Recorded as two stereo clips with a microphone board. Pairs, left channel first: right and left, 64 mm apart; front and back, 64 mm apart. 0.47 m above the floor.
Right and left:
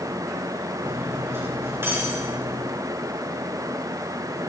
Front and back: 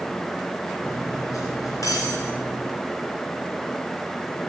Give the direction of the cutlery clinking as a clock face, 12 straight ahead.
11 o'clock.